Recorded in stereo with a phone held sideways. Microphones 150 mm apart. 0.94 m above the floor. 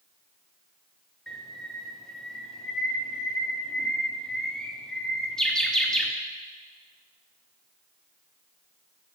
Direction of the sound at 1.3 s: 5° left (ahead or behind).